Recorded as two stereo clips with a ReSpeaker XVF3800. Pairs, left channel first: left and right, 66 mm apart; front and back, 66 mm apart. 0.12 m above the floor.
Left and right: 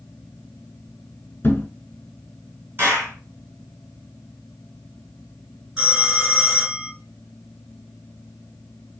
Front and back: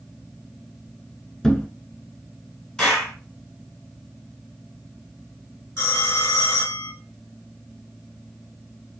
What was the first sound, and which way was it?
A thud, 70° left.